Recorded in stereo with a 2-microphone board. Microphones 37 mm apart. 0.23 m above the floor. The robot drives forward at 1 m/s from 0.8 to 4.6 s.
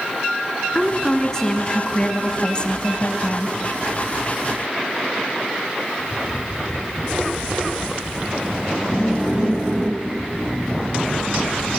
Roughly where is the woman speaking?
Centre.